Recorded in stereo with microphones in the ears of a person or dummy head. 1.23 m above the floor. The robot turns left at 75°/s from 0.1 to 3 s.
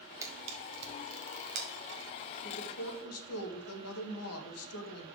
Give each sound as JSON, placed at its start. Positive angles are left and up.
{"t": 0.2, "sound": "a camera shutter", "side_deg": -15, "distance_m": 1.8}
{"t": 2.4, "sound": "a woman speaking", "azimuth_deg": 130, "distance_m": 1.8}